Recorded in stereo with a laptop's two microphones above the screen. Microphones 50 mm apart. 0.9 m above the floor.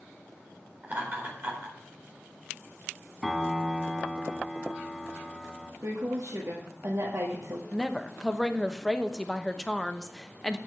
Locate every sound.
0.8 s laughter: 35° right (ahead or behind), 4 m
3.2 s a piano: 5° left (ahead or behind), 1.4 m
5.8 s a woman speaking: 65° right (ahead or behind), 1.8 m
7.7 s a woman speaking: 10° left (ahead or behind), 0.9 m